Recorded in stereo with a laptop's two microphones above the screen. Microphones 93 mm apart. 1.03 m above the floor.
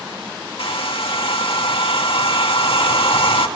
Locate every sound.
0.6 s a hair dryer: 75° left (ahead or behind), 1.7 m